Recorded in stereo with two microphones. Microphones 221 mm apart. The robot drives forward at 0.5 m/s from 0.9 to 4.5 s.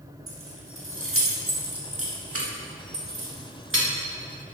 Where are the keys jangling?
70° right (ahead or behind), 1.6 m; by 3.9 s 60° right (ahead or behind), 1.7 m.